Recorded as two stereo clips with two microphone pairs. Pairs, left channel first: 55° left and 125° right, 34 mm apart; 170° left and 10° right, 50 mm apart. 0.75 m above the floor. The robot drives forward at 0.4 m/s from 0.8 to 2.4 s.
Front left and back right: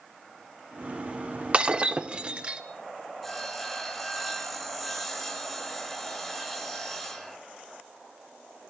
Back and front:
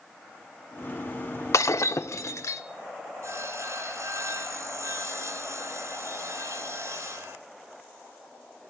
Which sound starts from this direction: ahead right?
Sawing, at 3.2 s.